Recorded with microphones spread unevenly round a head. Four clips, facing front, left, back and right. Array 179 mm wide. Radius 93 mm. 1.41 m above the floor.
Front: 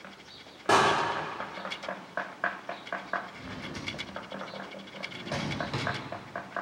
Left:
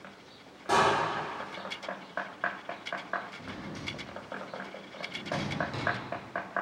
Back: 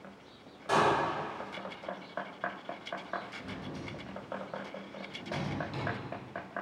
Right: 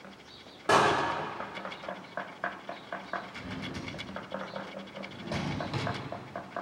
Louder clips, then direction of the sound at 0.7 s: Right 3 dB, front 5 dB; 20° right.